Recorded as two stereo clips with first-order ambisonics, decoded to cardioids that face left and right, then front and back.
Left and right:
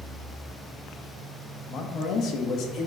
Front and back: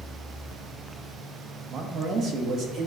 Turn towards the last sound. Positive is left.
turn(degrees=135)